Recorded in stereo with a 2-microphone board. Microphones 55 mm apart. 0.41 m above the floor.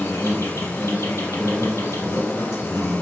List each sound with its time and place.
0.0 s an insect: 80° left, 1.0 m